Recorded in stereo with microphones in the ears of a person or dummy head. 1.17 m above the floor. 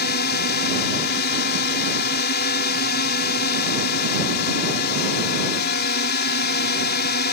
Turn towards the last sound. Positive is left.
turn(degrees=55)  # may be behind; listen again after turning